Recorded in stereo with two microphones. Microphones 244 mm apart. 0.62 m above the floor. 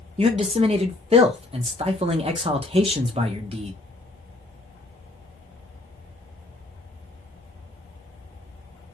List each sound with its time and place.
0.2 s a man speaking: 25° right (ahead or behind), 0.6 m